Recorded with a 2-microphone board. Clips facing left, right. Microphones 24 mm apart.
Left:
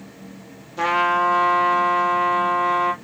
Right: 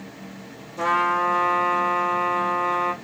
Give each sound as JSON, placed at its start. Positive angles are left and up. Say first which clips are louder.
{"t": 0.8, "sound": "a trumpet", "louder": "left 2 dB", "side_deg": 30, "distance_m": 1.4}